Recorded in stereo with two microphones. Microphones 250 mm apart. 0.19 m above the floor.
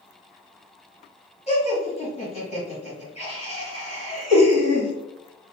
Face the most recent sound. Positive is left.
turn(degrees=25)  # may be behind; listen again after turning